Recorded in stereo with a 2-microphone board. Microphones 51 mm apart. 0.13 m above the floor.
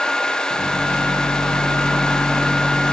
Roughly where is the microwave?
Left.